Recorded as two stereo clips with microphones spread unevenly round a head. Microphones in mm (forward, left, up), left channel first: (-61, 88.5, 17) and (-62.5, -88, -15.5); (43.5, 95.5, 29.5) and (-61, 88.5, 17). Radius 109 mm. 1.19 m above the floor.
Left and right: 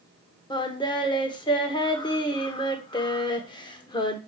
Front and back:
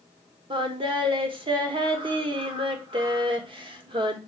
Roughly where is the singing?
Behind left.